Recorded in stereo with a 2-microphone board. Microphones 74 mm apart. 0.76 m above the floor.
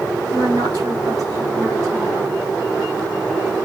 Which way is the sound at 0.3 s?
55° right (ahead or behind).